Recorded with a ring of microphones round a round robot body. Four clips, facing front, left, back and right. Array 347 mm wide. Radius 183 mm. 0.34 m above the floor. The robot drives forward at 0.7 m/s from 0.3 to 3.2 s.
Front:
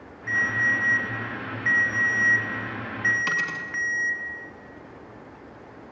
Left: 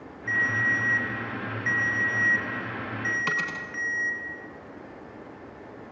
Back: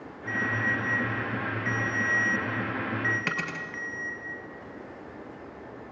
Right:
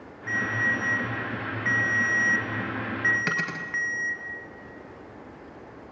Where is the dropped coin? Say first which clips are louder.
Even, front 3 dB; 120° right, 2 m.